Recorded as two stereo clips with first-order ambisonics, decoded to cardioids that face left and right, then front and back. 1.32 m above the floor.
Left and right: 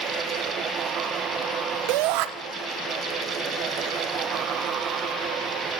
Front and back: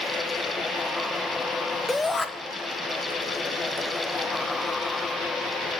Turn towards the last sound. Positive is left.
turn(degrees=-80)